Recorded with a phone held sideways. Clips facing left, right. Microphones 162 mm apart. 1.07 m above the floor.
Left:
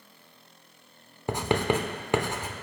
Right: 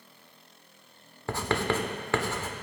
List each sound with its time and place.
1.3 s writing: 20° left (ahead or behind), 1.0 m